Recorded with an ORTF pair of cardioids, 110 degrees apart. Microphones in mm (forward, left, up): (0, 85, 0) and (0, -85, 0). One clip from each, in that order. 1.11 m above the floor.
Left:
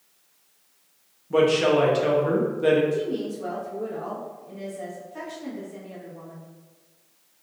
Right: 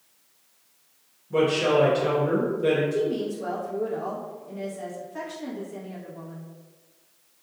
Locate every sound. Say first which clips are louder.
1.3 s a woman speaking: left 2 dB; 35° left, 1.1 m
2.9 s a woman speaking: right 1 dB; 10° right, 1.1 m